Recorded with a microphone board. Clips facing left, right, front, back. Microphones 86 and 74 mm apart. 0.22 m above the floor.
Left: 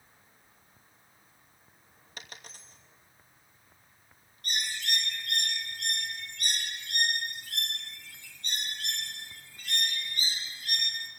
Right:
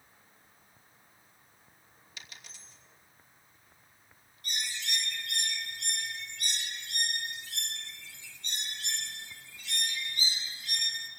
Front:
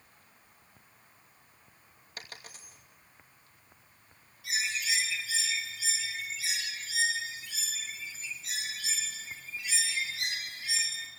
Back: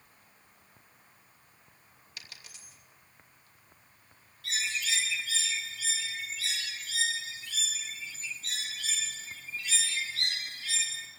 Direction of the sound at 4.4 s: 75° left.